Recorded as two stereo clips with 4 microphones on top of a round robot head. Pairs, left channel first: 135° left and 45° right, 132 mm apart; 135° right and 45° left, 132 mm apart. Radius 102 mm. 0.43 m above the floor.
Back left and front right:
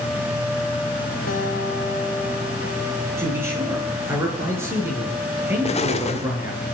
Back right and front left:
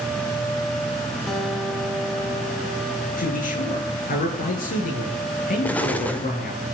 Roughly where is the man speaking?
Behind right.